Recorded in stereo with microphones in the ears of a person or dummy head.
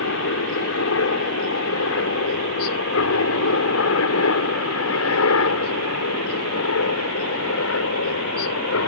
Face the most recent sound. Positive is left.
turn(degrees=75)  # may be behind; listen again after turning